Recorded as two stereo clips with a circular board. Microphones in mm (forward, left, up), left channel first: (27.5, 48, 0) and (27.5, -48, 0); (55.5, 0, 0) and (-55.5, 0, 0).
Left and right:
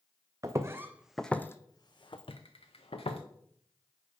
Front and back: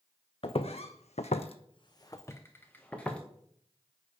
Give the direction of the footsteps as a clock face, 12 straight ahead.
1 o'clock.